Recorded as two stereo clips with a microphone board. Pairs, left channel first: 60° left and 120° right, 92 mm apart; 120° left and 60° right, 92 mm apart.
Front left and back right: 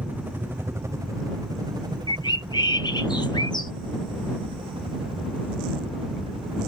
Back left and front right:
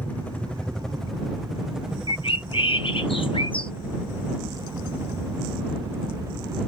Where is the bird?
100° left.